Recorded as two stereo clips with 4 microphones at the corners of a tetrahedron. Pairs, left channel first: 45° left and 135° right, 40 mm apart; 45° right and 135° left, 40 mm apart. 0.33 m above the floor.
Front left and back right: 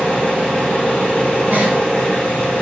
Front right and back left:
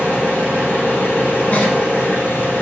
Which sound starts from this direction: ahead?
An engine running, at 0.0 s.